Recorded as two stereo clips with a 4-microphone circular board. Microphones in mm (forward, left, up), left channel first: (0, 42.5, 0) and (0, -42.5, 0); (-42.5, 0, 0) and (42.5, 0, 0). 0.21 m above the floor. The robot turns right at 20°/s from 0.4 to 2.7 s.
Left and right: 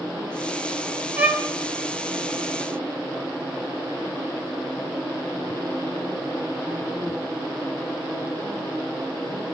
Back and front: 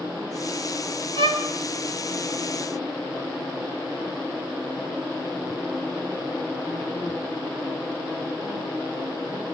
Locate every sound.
1.2 s a violin: 15° right, 1.1 m; by 1.4 s 10° right, 1.1 m